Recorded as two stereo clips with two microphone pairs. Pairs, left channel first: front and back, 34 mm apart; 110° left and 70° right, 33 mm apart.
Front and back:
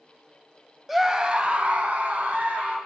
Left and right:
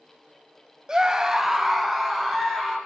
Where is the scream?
100° right, 0.9 m; by 2.8 s 155° right, 3 m.